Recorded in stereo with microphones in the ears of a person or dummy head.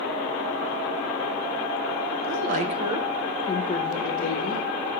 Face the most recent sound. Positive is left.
turn(degrees=50)  # may be behind; listen again after turning